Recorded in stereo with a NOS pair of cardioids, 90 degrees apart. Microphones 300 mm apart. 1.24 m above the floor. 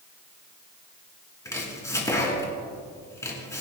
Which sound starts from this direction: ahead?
Chopping, at 1.4 s.